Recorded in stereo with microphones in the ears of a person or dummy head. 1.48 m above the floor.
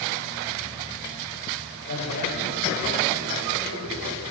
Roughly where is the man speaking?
Left.